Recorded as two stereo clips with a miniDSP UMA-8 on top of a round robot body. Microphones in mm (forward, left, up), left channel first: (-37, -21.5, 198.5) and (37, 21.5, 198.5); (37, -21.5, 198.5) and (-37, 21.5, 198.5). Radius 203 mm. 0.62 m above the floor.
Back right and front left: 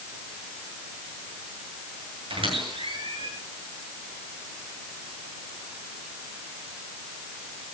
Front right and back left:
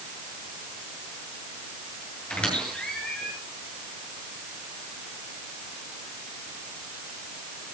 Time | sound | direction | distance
2.3 | a squeak | 45° left | 8 m